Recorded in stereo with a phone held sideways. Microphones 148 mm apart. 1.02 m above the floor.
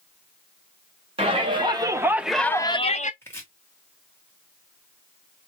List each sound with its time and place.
1.2 s a shout: 40° right (ahead or behind), 1.3 m; by 3.1 s 60° left (ahead or behind), 0.7 m
3.2 s chopping: 20° left (ahead or behind), 1.5 m